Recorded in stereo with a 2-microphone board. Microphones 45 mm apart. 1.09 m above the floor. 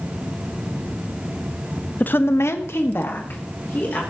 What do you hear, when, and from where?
2.0 s a woman speaking: 40° left (ahead or behind), 0.8 m; by 4.0 s 45° left (ahead or behind), 3 m